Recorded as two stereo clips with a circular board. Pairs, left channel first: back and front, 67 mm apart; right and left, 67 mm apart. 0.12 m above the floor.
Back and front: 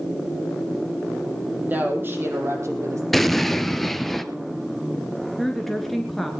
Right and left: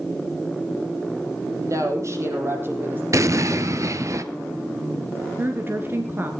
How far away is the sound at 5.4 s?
About 1.4 m.